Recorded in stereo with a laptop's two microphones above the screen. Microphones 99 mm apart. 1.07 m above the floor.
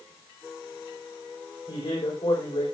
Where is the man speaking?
70° left (ahead or behind), 4 m.